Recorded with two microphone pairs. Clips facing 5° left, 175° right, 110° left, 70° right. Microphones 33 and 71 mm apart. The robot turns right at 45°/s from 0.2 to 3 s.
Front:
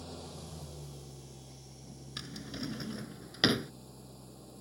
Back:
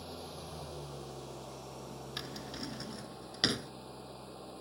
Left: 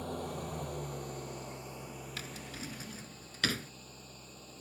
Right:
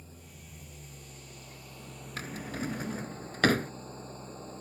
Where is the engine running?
110° left; by 4.6 s 125° right.